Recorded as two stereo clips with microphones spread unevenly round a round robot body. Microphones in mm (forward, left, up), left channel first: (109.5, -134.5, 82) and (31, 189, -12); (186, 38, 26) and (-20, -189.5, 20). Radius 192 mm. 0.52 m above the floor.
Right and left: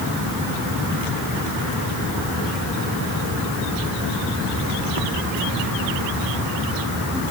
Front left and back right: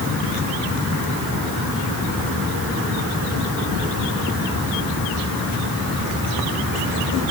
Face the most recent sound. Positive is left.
No sound to turn to.